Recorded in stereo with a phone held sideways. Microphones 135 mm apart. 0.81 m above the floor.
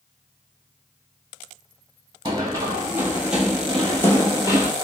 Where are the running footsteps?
30° right (ahead or behind), 1.3 m; by 4.7 s 35° left (ahead or behind), 1.1 m.